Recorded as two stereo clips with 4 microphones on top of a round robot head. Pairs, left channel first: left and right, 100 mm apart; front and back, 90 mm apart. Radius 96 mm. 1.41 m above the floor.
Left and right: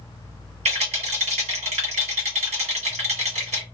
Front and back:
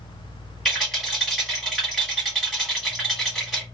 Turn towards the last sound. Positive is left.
turn(degrees=-85)